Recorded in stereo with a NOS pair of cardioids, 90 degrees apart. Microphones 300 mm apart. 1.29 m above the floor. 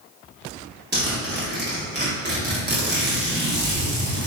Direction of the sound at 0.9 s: 35° right.